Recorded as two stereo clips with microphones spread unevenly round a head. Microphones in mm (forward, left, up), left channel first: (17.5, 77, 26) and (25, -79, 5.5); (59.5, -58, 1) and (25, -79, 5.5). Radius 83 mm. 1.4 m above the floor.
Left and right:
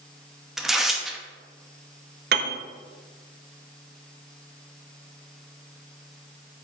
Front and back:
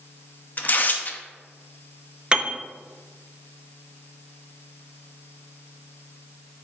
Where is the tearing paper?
10° left, 0.8 m.